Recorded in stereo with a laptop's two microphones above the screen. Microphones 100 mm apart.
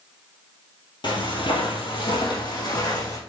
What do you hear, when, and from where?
1.0 s footsteps: 50° left (ahead or behind), 1.5 m; by 3.2 s 35° left (ahead or behind), 3 m